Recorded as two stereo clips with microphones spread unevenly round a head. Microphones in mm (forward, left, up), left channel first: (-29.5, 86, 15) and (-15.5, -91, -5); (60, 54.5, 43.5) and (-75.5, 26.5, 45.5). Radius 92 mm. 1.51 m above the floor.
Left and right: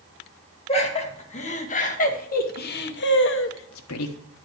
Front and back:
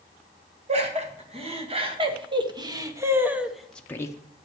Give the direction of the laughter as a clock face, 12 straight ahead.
7 o'clock.